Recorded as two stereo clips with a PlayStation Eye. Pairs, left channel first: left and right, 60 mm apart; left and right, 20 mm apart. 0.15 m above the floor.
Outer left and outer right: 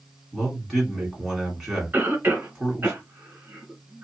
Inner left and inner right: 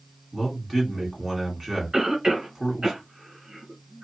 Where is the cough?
35° right (ahead or behind), 1.5 m.